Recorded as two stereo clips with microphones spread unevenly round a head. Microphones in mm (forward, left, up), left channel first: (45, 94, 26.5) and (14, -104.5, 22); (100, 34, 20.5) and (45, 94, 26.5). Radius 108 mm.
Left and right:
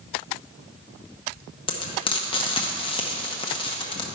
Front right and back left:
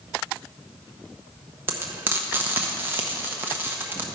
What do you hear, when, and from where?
1.7 s frying: 120° left, 0.7 m